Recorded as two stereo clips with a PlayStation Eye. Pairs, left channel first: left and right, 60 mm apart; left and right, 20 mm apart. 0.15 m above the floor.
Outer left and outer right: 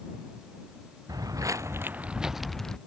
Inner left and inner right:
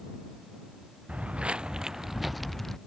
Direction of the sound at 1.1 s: 85° right.